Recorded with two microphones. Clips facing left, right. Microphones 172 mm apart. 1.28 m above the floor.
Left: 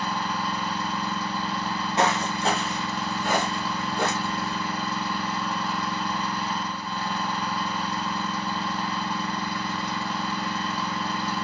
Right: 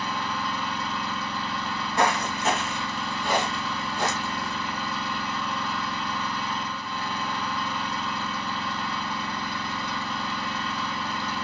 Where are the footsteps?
15° left (ahead or behind), 1.4 m; by 4.5 s 60° left (ahead or behind), 2.5 m.